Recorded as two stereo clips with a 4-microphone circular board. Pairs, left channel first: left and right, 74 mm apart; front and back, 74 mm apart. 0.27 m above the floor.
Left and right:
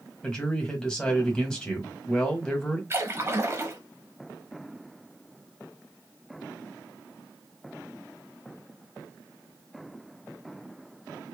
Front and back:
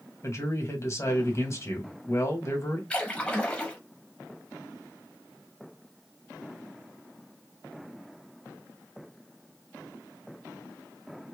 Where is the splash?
65° right, 1.0 m.